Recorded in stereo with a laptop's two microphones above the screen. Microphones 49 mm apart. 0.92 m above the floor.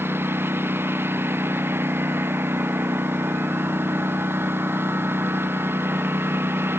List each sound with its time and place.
0.0 s a lawn mower: 50° right (ahead or behind)